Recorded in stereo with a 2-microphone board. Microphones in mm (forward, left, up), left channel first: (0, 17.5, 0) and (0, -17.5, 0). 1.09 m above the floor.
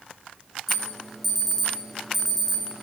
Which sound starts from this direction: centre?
An alarm, at 0.7 s.